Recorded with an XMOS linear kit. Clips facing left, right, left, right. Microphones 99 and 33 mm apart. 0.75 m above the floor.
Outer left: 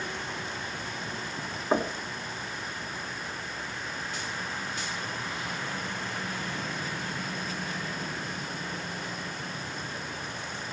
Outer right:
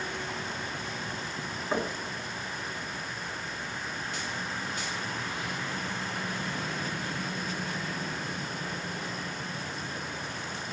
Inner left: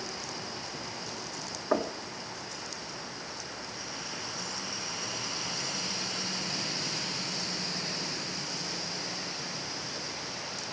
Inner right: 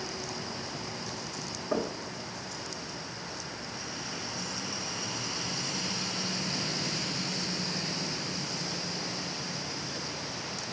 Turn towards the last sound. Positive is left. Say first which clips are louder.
# outer left 4 dB, inner left 2 dB
turn(degrees=40)  # may be behind; listen again after turning